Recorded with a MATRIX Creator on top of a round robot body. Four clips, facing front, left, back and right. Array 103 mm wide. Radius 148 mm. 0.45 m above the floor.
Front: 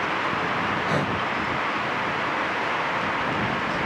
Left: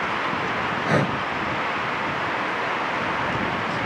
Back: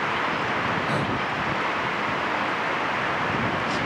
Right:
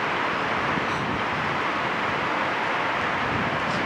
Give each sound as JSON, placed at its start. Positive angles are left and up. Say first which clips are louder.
{"t": 0.9, "sound": "breathing", "louder": "left 5 dB, front 1 dB", "azimuth_deg": 80}